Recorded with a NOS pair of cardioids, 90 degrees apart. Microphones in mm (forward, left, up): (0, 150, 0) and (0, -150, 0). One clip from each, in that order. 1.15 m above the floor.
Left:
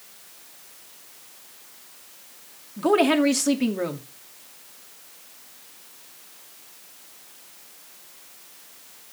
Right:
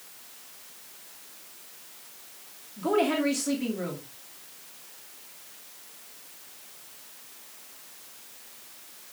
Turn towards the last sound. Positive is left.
turn(degrees=50)